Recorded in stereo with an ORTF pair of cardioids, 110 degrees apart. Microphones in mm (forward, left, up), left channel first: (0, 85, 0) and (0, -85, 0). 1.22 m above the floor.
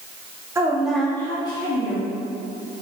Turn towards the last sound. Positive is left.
turn(degrees=40)